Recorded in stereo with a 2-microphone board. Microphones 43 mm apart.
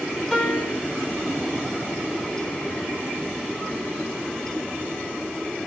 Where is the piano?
20° left (ahead or behind), 1.5 m.